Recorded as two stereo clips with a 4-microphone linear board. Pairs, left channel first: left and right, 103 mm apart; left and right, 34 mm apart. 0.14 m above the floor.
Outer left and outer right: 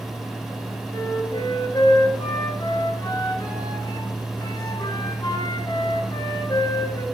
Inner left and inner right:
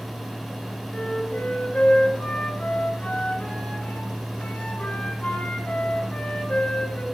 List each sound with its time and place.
0.9 s a flute: 45° left (ahead or behind), 1.7 m